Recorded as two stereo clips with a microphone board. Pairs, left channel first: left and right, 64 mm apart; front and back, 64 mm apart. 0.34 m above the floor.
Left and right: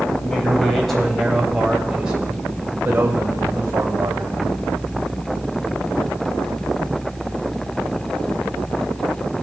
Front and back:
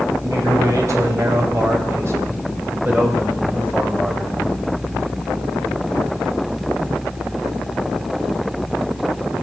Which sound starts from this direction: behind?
A man speaking, at 0.2 s.